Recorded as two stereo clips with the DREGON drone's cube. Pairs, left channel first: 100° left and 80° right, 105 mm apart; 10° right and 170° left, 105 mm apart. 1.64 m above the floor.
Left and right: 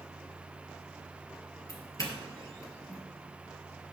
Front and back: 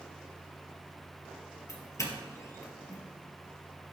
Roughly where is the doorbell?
Ahead left.